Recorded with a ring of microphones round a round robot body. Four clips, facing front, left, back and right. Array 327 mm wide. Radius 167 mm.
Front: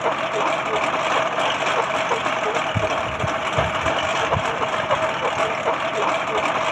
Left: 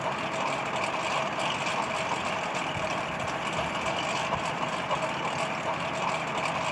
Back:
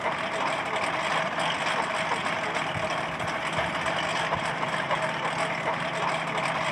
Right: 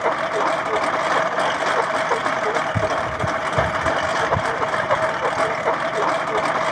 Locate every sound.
0.0 s a lawn mower: 55° right